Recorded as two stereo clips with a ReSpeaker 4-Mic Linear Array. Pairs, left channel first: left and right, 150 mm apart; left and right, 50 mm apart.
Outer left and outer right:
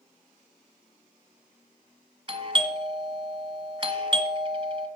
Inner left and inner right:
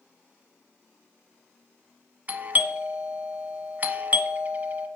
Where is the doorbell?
30° right (ahead or behind), 1.3 m.